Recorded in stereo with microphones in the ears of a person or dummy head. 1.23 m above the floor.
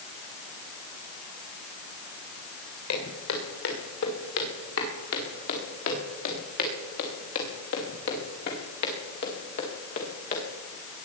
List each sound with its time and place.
2.9 s footsteps: 80° left, 7 m; by 10.4 s 50° left (ahead or behind), 5.5 m